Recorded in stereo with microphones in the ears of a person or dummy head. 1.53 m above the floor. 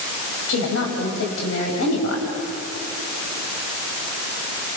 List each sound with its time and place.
0.5 s a woman speaking: 85° left, 7 m